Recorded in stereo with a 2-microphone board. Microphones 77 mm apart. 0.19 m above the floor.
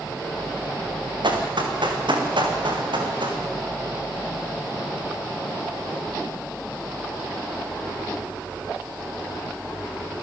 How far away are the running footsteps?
About 5 m.